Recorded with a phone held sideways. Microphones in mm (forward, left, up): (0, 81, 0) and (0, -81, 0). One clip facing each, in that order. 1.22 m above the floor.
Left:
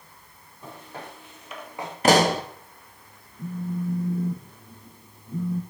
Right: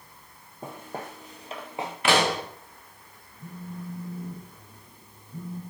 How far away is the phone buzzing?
About 0.9 m.